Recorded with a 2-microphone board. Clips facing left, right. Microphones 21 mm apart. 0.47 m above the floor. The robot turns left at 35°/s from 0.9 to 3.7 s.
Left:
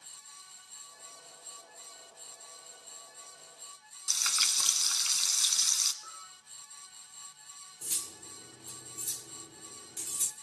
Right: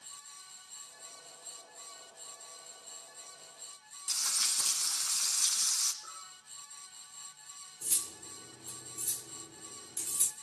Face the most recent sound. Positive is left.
turn(degrees=25)  # may be behind; listen again after turning